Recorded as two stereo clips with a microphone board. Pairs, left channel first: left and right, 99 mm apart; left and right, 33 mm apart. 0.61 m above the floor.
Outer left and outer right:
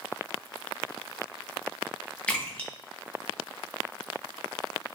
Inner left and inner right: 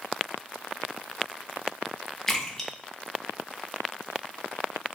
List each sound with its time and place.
2.3 s a splash: 10° left (ahead or behind), 0.6 m